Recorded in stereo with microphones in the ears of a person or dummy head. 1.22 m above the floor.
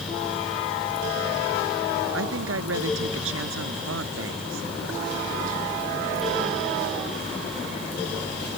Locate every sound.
2.1 s a woman speaking: 90° right